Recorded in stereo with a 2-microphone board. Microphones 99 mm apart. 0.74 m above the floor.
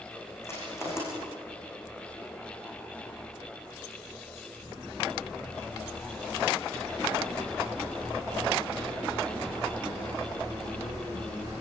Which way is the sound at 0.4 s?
25° left (ahead or behind).